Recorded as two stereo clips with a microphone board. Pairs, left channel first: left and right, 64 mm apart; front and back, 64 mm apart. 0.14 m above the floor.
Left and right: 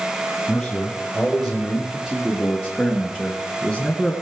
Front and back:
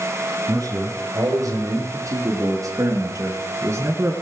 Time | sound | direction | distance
0.5 | a man speaking | 170° left | 3 m